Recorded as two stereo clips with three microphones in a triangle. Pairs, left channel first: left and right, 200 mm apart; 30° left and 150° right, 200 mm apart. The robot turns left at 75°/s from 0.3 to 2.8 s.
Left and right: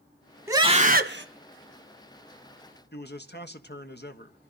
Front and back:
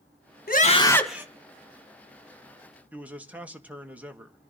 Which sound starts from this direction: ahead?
A scream, at 0.5 s.